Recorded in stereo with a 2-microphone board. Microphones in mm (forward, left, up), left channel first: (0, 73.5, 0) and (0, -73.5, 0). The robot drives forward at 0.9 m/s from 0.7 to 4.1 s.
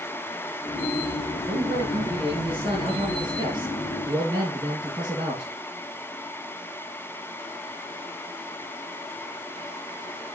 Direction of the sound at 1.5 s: 45° right (ahead or behind).